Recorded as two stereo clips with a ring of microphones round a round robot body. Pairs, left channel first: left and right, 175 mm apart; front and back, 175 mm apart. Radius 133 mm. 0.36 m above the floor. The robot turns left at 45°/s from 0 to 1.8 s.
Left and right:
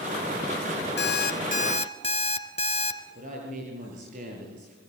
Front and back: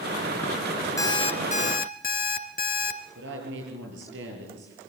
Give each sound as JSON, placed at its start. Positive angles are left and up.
{"t": 1.0, "sound": "an alarm clock", "azimuth_deg": 75, "distance_m": 2.5}
{"t": 3.1, "sound": "a woman speaking", "azimuth_deg": -150, "distance_m": 6.5}